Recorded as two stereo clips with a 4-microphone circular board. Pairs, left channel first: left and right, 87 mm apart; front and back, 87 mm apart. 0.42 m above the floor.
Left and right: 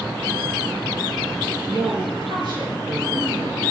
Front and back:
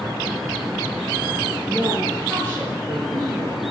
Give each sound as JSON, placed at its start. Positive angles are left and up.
{"t": 1.7, "sound": "a woman speaking", "azimuth_deg": -75, "distance_m": 8.0}